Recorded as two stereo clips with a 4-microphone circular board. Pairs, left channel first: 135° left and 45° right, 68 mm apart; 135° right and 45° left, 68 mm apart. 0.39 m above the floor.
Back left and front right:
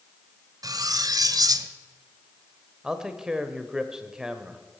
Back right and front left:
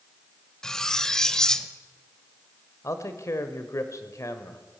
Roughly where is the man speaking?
Behind right.